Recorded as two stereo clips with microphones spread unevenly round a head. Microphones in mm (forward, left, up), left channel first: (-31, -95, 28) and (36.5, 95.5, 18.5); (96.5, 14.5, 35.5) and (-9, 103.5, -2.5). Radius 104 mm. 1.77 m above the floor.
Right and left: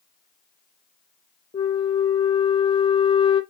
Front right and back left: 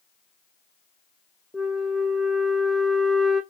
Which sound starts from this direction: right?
A flute, at 1.5 s.